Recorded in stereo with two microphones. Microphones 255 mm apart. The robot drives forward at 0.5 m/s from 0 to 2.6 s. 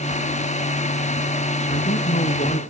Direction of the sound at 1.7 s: 30° left (ahead or behind).